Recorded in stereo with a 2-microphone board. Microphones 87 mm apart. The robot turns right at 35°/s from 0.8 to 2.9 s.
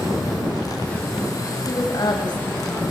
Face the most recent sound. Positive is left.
turn(degrees=100)